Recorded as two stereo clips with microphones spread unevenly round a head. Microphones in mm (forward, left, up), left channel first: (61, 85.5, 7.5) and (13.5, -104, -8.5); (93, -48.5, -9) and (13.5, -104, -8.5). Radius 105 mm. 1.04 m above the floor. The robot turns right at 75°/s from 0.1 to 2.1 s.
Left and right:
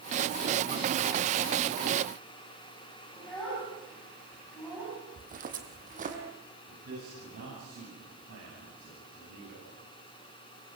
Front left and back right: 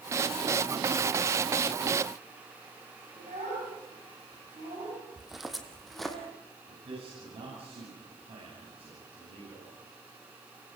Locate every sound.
3.2 s a child speaking: 165° left, 6.5 m
5.2 s footsteps: 60° right, 3 m; by 6.2 s 55° right, 3.5 m
6.7 s a man speaking: 130° right, 9.5 m